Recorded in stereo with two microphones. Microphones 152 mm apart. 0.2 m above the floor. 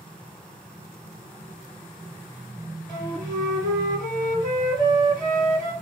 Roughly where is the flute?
Left.